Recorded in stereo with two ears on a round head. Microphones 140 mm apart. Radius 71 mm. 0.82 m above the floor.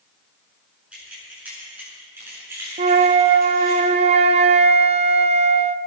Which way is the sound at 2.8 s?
40° right (ahead or behind).